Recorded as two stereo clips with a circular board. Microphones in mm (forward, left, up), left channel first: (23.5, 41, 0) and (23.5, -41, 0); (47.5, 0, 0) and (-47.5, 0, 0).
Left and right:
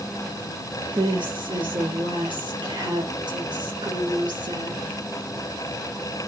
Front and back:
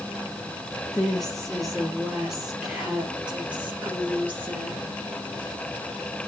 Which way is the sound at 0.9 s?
85° right.